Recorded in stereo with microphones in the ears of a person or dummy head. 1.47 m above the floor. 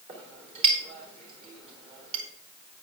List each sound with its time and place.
0.1 s a clink: 30° right (ahead or behind), 3.5 m